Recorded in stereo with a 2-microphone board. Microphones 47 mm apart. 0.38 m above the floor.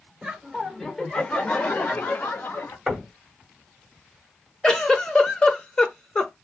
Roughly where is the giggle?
Centre.